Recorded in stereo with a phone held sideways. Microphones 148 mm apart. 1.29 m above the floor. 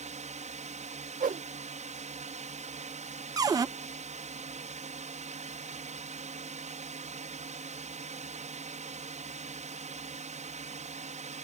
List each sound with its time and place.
0.0 s a drone: 50° right (ahead or behind)
1.2 s a whoosh: 70° right (ahead or behind)
3.4 s a cupboard door: 25° right (ahead or behind)